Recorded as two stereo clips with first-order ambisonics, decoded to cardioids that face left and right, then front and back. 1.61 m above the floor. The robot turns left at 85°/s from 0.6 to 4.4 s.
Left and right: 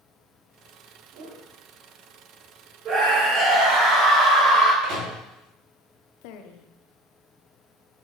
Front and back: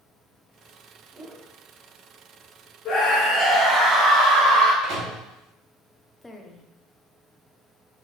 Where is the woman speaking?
85° left, 1.0 m.